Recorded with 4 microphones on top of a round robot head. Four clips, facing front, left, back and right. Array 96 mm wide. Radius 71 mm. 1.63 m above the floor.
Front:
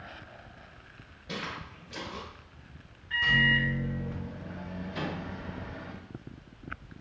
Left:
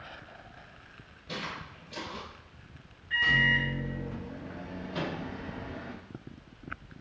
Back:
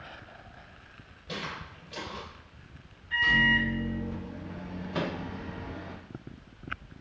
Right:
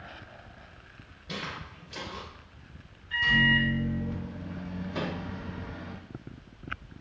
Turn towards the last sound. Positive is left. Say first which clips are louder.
# right 1 dB, back 4 dB
turn(degrees=-170)